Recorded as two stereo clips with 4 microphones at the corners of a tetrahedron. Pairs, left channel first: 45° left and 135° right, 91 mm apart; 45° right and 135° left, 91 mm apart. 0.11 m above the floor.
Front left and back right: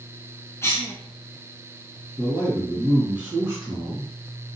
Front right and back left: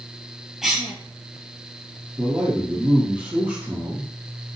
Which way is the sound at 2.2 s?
160° right.